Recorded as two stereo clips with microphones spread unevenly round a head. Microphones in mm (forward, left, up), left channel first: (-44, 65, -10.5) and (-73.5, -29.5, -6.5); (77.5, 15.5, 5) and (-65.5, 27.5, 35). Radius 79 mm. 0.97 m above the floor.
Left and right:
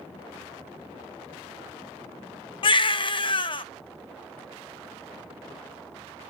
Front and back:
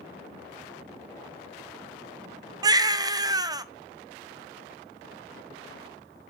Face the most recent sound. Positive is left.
turn(degrees=110)